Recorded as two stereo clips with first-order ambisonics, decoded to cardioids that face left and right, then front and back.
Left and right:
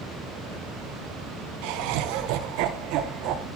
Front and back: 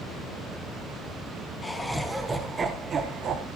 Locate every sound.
1.6 s laughter: 75° right, 1.4 m; by 3.5 s 125° right, 1.7 m